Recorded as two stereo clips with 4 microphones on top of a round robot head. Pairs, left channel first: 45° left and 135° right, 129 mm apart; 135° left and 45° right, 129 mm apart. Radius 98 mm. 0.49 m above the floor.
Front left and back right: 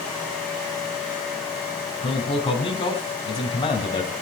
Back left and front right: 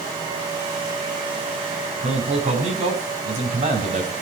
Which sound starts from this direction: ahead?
A man speaking, at 2.0 s.